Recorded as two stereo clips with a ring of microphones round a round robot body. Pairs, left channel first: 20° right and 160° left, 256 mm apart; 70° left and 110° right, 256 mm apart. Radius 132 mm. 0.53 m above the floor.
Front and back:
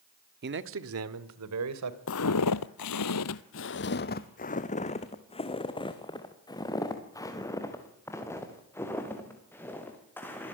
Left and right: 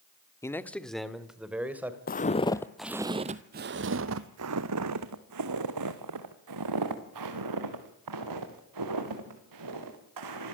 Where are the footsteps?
15° left, 1.0 m; by 10.5 s 105° right, 6 m.